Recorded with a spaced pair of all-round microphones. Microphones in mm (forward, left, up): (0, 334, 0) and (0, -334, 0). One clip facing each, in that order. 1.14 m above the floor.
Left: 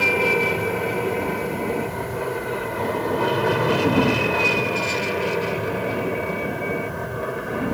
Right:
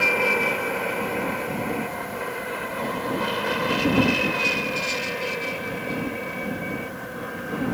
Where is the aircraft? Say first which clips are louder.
Left 4 dB; 60° left (ahead or behind); by 7.8 s 75° left (ahead or behind).